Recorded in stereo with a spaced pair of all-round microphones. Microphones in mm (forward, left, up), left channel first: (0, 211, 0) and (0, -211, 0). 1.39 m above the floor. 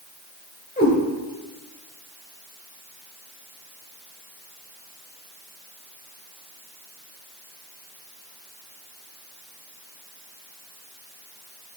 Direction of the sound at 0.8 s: 20° left (ahead or behind).